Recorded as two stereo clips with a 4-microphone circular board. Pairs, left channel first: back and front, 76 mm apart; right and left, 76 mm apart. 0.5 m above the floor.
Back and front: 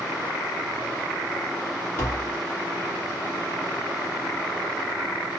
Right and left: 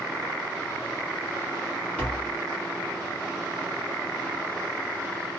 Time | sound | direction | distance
2.0 | tapping | 145° right | 1.3 m